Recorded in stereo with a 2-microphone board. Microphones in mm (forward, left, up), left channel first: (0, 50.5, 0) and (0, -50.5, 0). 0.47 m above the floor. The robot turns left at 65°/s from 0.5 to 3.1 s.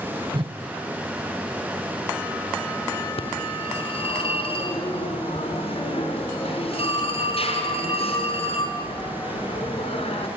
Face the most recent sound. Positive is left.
turn(degrees=75)  # may be behind; listen again after turning